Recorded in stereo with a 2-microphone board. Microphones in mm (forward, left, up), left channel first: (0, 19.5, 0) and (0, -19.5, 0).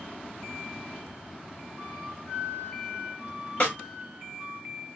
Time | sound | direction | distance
1.8 | a flute | 5° right (ahead or behind) | 2.5 m
3.6 | a snare drum | 35° left (ahead or behind) | 2.0 m